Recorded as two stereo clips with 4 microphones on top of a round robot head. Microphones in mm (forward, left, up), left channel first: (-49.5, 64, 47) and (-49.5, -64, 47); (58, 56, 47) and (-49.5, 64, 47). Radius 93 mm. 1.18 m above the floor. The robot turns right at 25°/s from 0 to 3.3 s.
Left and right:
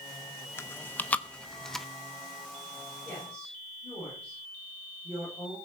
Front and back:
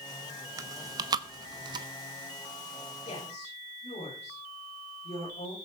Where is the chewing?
145° left, 0.5 m; by 1.9 s straight behind, 0.5 m.